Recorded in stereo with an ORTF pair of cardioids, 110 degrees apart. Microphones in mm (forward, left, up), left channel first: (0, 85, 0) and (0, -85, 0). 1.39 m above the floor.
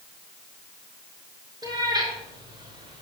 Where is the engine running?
I don't hear an engine running.